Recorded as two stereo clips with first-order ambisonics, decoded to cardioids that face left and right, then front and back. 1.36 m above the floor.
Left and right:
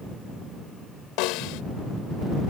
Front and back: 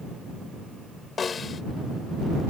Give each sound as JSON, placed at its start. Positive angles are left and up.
{"t": 1.2, "sound": "a snare drum", "azimuth_deg": 70}